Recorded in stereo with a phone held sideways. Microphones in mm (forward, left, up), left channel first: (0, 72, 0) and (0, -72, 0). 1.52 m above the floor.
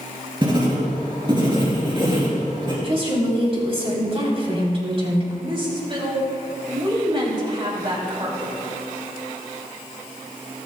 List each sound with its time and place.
0.4 s writing: 35° right (ahead or behind), 3.5 m
2.8 s a woman speaking: 40° right (ahead or behind), 3.5 m
5.4 s a woman speaking: 35° right (ahead or behind), 3 m